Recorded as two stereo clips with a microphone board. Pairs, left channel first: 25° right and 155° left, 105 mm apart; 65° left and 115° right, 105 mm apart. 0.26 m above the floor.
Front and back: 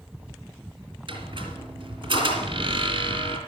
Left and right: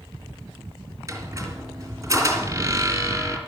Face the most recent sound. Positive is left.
turn(degrees=-170)